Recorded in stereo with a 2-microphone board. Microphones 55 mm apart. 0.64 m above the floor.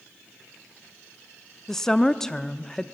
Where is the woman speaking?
10° left (ahead or behind), 0.7 m.